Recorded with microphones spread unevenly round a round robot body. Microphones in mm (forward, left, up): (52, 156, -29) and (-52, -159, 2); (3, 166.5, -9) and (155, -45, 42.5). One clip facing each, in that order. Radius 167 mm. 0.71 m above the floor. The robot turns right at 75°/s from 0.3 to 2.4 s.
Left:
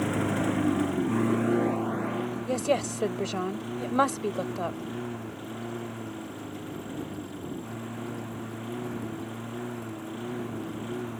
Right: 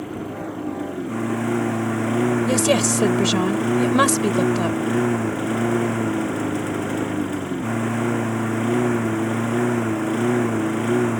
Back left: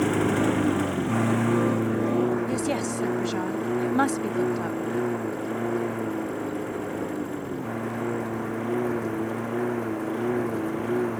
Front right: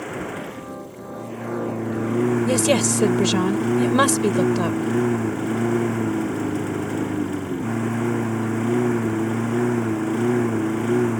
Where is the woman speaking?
75° right.